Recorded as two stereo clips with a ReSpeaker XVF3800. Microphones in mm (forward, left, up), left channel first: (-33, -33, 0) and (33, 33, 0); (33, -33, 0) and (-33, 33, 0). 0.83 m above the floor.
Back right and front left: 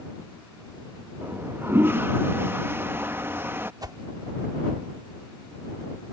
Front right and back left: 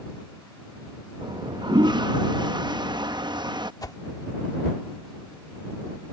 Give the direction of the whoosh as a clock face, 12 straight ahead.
12 o'clock.